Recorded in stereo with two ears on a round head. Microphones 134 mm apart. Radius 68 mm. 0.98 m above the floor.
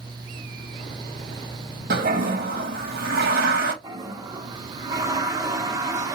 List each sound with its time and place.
1.9 s a toilet flushing: 65° right (ahead or behind), 1.0 m
3.8 s a toilet flushing: 20° right (ahead or behind), 0.7 m